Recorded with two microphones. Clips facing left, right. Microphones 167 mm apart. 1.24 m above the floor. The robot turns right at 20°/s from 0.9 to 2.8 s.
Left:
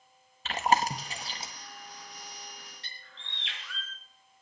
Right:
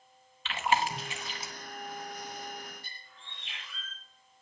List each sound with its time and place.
0.5 s chewing: 35° left (ahead or behind), 1.5 m; by 1.5 s 25° left (ahead or behind), 1.5 m
2.8 s a bird: 80° left, 4.5 m